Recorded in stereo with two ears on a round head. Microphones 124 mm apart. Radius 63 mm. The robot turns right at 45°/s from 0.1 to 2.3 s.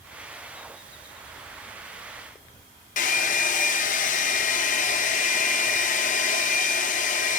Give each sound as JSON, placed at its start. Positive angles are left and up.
{"t": 3.0, "sound": "a hair dryer", "side_deg": 60, "distance_m": 0.5}